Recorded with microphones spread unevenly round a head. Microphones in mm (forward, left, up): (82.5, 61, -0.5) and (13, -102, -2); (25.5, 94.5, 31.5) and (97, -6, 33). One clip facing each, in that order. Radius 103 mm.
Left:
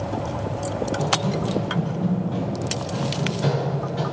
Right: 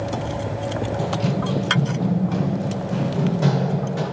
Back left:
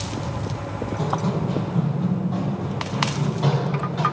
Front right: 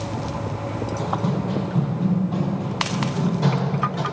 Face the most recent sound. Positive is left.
turn(degrees=-90)